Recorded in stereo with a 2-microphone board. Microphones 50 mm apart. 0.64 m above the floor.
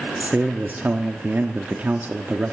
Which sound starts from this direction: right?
A man speaking, at 0.2 s.